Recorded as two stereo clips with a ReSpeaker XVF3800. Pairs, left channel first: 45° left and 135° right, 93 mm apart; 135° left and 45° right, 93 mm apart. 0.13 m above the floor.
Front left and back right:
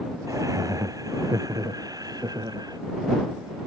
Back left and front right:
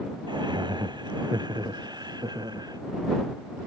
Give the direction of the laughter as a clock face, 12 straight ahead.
3 o'clock.